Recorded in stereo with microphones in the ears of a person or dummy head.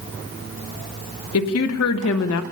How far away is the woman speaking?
About 1.6 m.